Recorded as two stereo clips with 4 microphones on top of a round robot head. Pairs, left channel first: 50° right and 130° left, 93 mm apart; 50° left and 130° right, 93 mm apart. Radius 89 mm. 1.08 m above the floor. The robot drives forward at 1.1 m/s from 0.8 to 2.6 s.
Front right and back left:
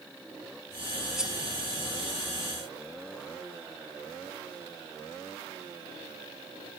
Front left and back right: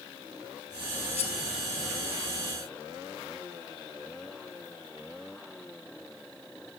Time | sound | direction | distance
1.2 | cutlery clinking | 45° left | ?